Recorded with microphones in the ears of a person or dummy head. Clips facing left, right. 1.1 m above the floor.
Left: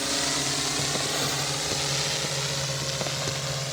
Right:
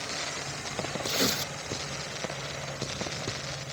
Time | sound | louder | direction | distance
0.0 | a drone | left 8 dB | 65° left (ahead or behind) | ?
1.0 | tearing paper | even | 35° right (ahead or behind) | ?